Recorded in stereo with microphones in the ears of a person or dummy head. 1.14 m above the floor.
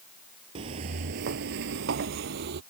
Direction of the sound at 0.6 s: 25° right (ahead or behind).